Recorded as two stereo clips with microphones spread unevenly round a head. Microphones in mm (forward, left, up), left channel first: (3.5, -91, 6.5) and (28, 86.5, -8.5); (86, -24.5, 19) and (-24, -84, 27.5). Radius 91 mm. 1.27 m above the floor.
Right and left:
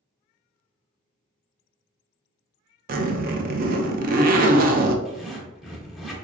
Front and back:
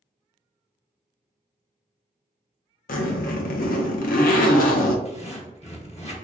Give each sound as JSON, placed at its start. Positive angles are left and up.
{"t": 2.9, "sound": "a zipper", "azimuth_deg": 40, "distance_m": 0.5}
{"t": 5.0, "sound": "a zipper", "azimuth_deg": -5, "distance_m": 1.1}